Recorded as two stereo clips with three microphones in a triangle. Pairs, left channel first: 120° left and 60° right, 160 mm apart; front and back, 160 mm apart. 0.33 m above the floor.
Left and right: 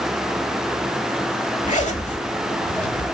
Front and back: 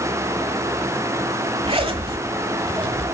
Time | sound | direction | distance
1.6 | a zipper | 140° left | 1.2 m